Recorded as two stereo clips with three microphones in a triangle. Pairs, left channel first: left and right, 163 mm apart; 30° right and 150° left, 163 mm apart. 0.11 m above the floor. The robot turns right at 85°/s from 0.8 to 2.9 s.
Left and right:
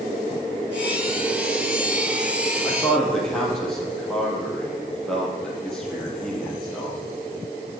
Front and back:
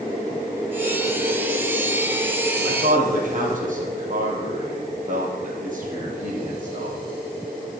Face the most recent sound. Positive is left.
turn(degrees=175)